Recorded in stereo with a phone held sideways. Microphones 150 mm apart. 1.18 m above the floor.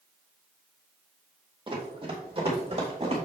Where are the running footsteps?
35° right (ahead or behind), 2.5 m; by 3.2 s 45° right (ahead or behind), 3.5 m.